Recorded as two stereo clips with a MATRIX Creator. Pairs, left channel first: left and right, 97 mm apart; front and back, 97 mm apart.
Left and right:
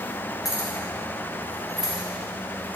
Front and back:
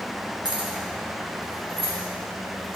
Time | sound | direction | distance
0.5 | keys jangling | 140° left | 1.1 m